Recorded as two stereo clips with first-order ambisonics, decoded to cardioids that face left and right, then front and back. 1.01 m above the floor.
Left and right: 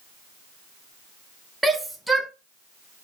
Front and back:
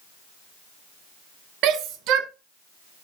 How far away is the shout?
About 0.6 m.